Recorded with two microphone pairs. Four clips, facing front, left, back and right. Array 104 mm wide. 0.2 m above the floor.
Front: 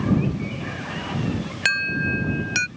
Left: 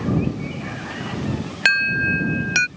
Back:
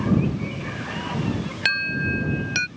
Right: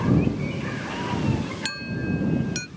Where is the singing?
I don't hear singing.